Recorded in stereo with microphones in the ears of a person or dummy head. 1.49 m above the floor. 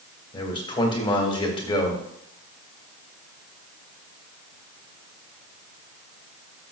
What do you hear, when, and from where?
0.3 s a man speaking: 25° left (ahead or behind), 2 m